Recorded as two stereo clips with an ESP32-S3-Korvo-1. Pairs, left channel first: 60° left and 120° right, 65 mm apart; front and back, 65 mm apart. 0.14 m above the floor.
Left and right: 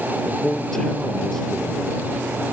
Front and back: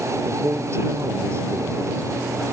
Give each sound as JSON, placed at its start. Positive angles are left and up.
{"t": 0.2, "sound": "a man speaking", "azimuth_deg": 145}